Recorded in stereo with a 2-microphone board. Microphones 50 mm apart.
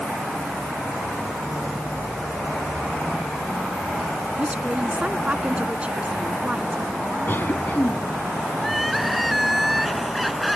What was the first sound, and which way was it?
A woman speaking, 25° right (ahead or behind).